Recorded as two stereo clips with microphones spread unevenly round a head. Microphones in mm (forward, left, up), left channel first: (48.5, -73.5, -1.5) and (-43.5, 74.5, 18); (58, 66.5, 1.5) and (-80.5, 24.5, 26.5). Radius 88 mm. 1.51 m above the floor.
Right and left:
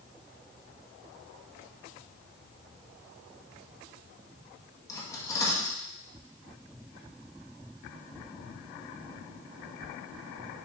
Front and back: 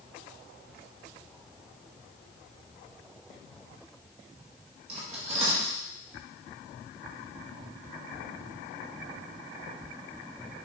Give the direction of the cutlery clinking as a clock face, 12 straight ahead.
4 o'clock.